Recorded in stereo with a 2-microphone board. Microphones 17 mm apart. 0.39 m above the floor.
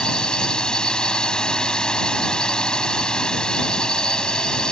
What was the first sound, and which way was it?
A drone, 55° left (ahead or behind).